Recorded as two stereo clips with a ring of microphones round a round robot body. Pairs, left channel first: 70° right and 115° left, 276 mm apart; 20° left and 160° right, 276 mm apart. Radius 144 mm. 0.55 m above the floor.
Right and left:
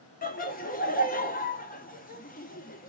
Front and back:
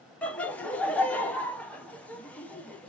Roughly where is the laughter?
Ahead right.